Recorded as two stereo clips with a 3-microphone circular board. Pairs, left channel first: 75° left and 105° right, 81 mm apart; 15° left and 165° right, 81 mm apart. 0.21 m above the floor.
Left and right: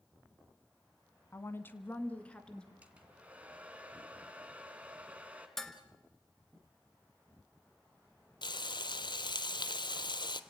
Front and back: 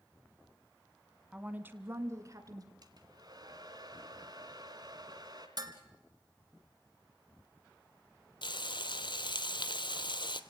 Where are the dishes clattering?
160° left, 1.8 m.